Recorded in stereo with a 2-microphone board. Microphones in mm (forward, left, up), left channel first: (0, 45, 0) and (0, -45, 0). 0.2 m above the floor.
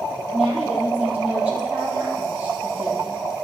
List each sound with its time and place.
0.3 s a woman speaking: centre (ahead or behind), 6.5 m; by 3.2 s 15° right (ahead or behind), 7.5 m